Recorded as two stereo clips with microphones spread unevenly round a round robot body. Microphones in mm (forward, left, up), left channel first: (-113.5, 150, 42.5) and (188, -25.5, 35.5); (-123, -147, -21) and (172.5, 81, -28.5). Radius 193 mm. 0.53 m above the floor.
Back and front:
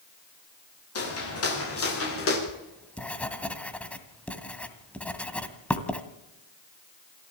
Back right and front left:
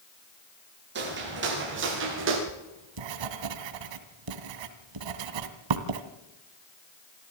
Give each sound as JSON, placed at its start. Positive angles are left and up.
{"t": 0.9, "sound": "footsteps", "azimuth_deg": 100, "distance_m": 9.5}
{"t": 2.5, "sound": "writing", "azimuth_deg": 65, "distance_m": 2.0}